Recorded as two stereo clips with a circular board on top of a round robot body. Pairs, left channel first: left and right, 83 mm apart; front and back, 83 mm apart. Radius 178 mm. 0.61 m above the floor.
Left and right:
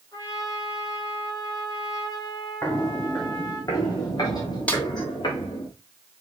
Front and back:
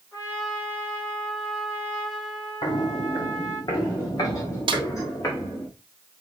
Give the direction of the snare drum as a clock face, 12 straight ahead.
7 o'clock.